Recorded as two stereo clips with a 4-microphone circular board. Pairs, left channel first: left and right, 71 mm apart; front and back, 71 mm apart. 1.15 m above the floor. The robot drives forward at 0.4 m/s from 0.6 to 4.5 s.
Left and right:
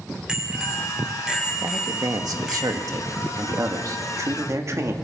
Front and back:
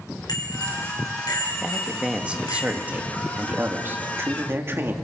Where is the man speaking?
100° right, 1.9 m; by 4.9 s 130° right, 2.5 m.